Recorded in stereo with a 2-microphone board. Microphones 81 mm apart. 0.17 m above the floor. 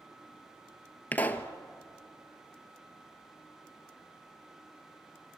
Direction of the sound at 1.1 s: 20° left (ahead or behind).